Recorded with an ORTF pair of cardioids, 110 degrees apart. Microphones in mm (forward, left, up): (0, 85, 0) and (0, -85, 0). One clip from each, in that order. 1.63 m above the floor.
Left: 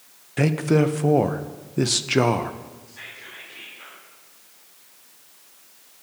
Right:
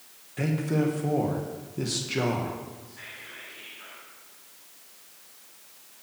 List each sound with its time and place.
0.4 s a man speaking: 50° left, 0.8 m
2.9 s whispering: 35° left, 3.5 m